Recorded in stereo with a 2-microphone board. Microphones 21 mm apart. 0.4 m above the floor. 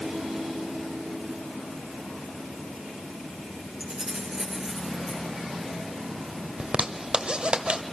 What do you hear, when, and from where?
3.8 s keys jangling: 30° right (ahead or behind), 6.5 m; by 5.2 s 15° right (ahead or behind), 5.5 m
6.6 s a zipper: 50° right (ahead or behind), 1.2 m